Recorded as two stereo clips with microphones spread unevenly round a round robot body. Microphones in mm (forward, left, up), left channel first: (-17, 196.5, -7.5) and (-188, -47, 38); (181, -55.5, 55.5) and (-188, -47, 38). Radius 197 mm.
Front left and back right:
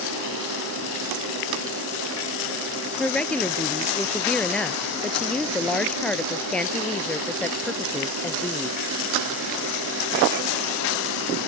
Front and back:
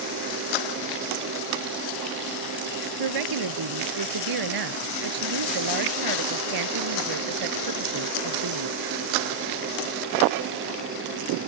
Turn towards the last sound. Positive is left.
turn(degrees=140)